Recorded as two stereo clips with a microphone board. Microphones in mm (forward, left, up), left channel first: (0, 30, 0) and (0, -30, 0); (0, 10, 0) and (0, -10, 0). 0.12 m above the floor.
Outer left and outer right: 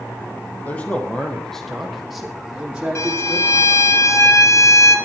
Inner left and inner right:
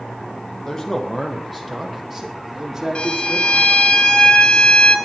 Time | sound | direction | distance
0.7 | a man speaking | 25° left (ahead or behind) | 3 m
3.0 | a violin | 60° left (ahead or behind) | 1.4 m